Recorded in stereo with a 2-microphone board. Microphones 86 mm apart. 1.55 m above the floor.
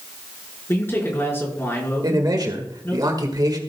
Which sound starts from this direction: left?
A man speaking, at 0.7 s.